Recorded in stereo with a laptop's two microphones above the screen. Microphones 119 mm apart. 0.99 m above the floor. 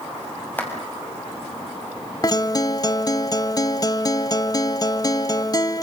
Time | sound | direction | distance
0.6 | a clap | 15° left (ahead or behind) | 6 m
2.2 | a guitar | 30° left (ahead or behind) | 0.9 m